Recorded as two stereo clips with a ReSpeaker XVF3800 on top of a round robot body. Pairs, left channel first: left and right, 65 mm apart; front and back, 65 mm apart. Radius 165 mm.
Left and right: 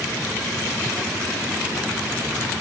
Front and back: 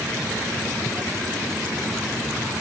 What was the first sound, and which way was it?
Only background noise.